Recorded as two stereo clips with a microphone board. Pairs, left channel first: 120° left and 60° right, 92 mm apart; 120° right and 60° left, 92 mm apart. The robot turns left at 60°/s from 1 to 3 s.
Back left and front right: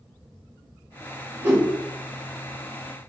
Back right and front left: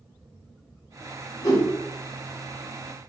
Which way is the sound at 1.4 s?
105° right.